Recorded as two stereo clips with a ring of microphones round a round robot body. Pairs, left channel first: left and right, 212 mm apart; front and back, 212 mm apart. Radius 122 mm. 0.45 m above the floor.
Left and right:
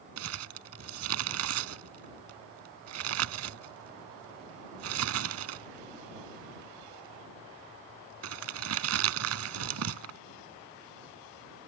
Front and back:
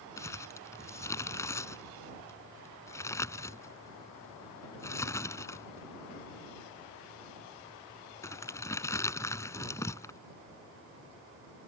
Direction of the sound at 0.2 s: 80° right.